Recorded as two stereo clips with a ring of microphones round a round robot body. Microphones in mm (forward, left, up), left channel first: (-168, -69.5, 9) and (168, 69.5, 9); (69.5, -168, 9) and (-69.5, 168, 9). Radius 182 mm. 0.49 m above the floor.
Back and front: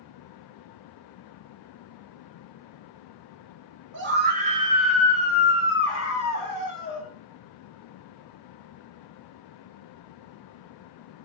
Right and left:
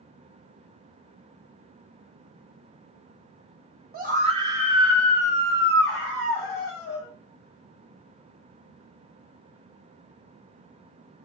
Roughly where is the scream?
Ahead left.